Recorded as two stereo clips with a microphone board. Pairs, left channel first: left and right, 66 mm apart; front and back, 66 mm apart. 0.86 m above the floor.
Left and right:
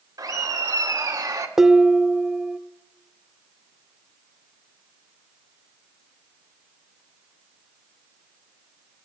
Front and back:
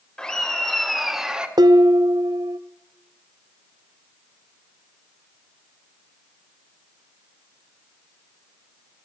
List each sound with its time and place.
0.2 s laughter: 75° right, 2.5 m; by 1.5 s 105° right, 1.6 m
1.6 s dishes clattering: 170° right, 0.5 m